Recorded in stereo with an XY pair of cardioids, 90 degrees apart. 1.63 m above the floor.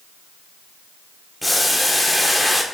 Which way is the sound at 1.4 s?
5° left.